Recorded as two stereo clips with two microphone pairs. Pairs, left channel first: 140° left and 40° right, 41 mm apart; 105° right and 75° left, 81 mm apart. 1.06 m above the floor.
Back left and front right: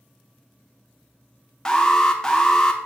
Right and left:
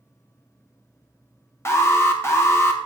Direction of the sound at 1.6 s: 155° right.